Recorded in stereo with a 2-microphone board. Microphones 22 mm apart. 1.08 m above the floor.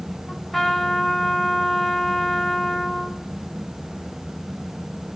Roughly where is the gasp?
I don't hear a gasp.